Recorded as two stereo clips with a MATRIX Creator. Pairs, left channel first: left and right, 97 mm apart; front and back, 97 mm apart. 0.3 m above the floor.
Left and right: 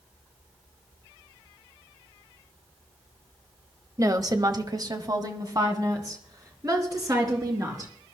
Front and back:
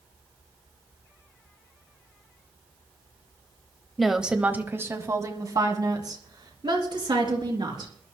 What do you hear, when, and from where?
4.0 s a woman speaking: 90° right, 1.1 m; by 7.9 s 145° right, 4 m